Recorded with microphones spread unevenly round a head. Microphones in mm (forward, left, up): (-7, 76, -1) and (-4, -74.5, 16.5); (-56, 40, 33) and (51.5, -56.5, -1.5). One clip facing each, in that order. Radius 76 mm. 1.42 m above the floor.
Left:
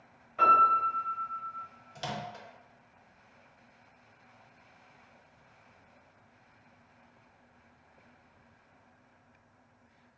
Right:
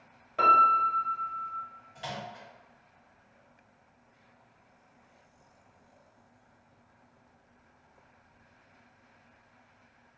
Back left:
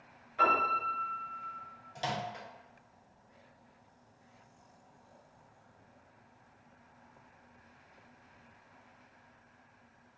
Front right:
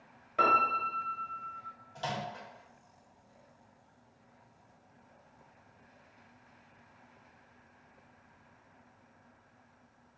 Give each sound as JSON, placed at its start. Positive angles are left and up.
{"t": 0.4, "sound": "a piano", "azimuth_deg": -70, "distance_m": 1.1}
{"t": 1.9, "sound": "a microwave", "azimuth_deg": 90, "distance_m": 0.5}